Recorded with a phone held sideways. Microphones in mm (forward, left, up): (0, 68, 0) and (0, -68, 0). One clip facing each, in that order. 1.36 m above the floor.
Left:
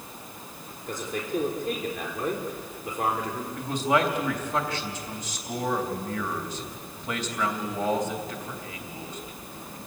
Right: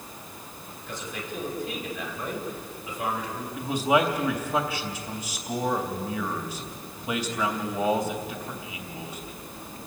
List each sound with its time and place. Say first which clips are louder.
0.9 s a man speaking: left 5 dB; 50° left (ahead or behind), 4.5 m
3.6 s a man speaking: right 2 dB; 10° right (ahead or behind), 3 m